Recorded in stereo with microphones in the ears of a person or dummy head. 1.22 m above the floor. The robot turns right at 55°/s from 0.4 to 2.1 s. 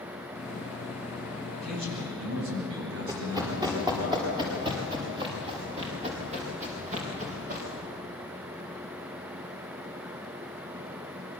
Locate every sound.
1.5 s a man speaking: 140° right, 9.5 m; by 4.1 s 110° right, 9.5 m
3.1 s running footsteps: 20° right (ahead or behind), 8 m; by 7.7 s 45° right (ahead or behind), 8 m